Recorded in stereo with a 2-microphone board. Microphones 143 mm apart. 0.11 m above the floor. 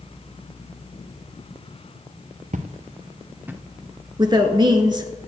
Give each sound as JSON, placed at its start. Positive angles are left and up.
{"t": 2.5, "sound": "footsteps", "side_deg": -65, "distance_m": 1.1}
{"t": 4.2, "sound": "a woman speaking", "side_deg": -30, "distance_m": 1.2}